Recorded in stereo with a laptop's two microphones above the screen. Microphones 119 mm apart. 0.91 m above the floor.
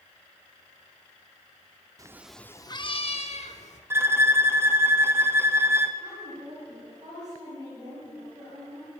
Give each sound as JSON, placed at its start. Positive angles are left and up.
{"t": 2.0, "sound": "a cat meowing", "side_deg": -30, "distance_m": 0.5}
{"t": 3.9, "sound": "a violin", "side_deg": -20, "distance_m": 0.6}
{"t": 6.0, "sound": "a woman speaking", "side_deg": -35, "distance_m": 4.5}